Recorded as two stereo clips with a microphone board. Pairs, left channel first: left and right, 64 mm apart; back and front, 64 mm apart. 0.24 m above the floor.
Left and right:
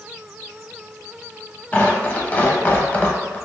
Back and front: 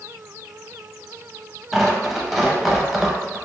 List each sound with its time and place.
1.7 s tearing paper: 85° left, 0.5 m